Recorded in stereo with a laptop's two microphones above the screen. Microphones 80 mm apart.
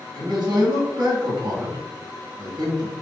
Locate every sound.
0.1 s a man speaking: 60° right (ahead or behind), 1.6 m